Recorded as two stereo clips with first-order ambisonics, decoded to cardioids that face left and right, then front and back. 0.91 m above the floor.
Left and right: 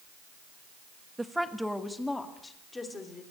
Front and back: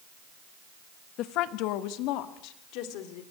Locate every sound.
1.2 s a woman speaking: 10° right, 1.0 m; by 3.2 s 15° left, 3 m